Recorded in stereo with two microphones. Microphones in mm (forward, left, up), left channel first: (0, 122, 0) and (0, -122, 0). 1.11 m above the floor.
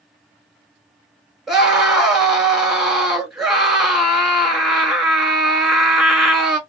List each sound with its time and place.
1.5 s a scream: centre (ahead or behind), 1.4 m